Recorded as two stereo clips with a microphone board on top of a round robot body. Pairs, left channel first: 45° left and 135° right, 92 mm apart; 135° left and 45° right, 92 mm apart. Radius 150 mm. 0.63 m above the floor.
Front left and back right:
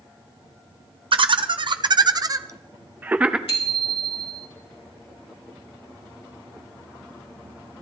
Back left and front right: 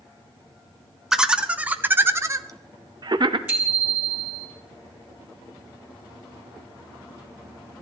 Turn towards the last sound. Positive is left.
turn(degrees=30)